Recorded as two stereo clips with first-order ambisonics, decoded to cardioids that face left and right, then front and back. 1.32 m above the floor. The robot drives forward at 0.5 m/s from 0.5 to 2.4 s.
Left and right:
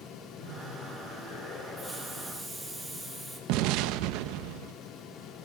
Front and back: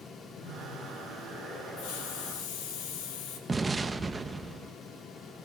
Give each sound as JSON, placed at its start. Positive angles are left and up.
{"t": 0.3, "sound": "laughter", "azimuth_deg": 55, "distance_m": 7.5}
{"t": 1.8, "sound": "a hiss", "azimuth_deg": 0, "distance_m": 7.5}
{"t": 3.5, "sound": "an explosion", "azimuth_deg": -105, "distance_m": 0.8}